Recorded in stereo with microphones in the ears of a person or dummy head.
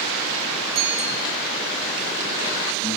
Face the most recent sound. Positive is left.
turn(degrees=-35)  # may be behind; listen again after turning